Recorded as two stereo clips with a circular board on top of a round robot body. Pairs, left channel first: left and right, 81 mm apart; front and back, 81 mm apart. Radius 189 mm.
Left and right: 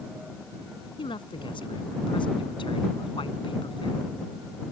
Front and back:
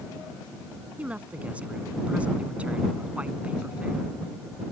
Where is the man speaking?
105° left.